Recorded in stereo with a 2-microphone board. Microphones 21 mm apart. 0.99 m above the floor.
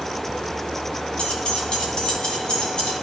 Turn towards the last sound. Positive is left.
turn(degrees=45)  # may be behind; listen again after turning